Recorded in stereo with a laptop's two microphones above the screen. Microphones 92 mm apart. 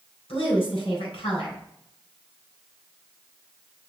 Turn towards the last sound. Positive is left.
turn(degrees=85)